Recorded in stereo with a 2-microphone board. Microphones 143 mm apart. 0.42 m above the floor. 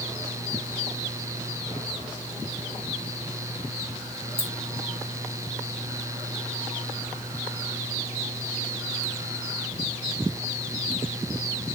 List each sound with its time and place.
4.4 s keys jangling: 35° right (ahead or behind), 3.5 m